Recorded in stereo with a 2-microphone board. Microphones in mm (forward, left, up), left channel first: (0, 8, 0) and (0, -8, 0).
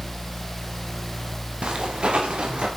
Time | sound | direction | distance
1.6 | footsteps | 80° right | 3.5 m